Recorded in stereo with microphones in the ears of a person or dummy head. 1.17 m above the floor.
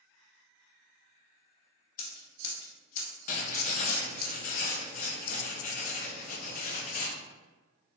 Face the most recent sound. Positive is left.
turn(degrees=35)  # may be behind; listen again after turning